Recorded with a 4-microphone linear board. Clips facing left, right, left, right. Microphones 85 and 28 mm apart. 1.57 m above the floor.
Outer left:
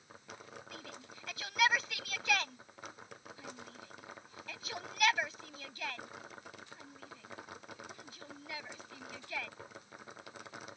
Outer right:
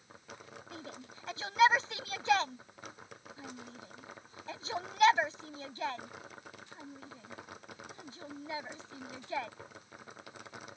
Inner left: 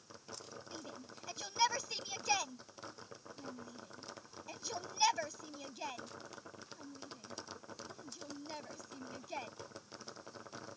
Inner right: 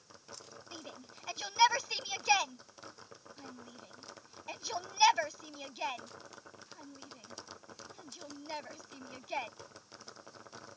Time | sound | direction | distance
0.7 | a shout | 30° right (ahead or behind) | ?